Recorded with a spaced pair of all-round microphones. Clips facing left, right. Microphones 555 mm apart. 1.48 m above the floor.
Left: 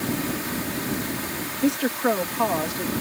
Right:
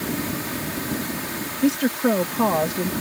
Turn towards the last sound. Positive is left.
turn(degrees=-80)